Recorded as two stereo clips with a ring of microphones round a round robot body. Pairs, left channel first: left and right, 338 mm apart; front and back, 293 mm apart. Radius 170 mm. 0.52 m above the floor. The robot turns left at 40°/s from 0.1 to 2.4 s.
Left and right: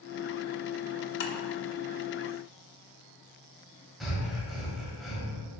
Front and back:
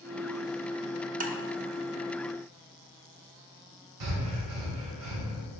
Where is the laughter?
No laughter in this recording.